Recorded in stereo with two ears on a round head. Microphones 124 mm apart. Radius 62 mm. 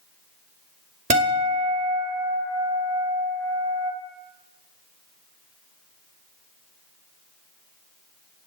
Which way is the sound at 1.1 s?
55° right (ahead or behind).